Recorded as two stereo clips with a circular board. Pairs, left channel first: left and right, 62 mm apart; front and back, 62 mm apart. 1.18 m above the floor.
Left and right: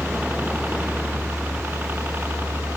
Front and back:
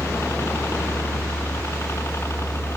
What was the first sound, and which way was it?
A helicopter, 35° right.